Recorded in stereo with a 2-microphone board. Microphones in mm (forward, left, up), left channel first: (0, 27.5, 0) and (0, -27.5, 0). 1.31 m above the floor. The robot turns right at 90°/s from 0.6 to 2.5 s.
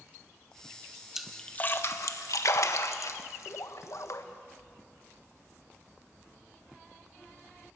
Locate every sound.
1.1 s a splash: 10° right (ahead or behind), 1.4 m; by 4.2 s 65° left (ahead or behind), 1.4 m